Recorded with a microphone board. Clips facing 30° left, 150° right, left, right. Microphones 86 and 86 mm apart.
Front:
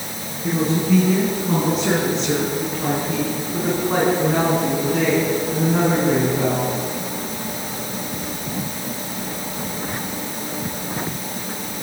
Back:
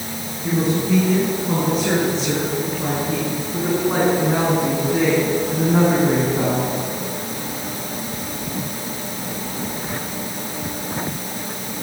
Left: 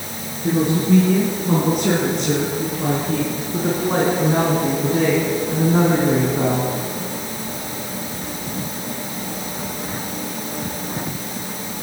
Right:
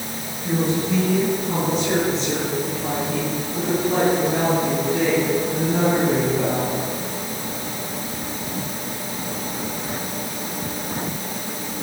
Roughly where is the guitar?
I don't hear a guitar.